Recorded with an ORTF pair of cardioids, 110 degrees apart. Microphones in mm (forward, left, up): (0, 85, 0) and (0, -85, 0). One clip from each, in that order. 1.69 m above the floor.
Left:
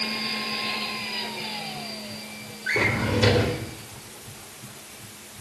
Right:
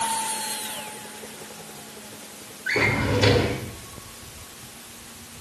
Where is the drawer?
5° right, 3.5 m.